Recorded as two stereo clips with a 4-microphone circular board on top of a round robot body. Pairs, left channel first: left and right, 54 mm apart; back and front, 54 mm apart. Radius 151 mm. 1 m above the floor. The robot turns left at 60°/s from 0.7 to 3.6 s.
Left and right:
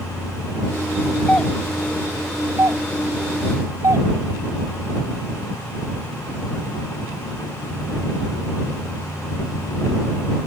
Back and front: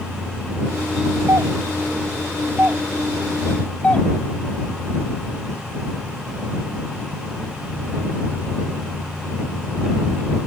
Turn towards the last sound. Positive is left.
turn(degrees=-110)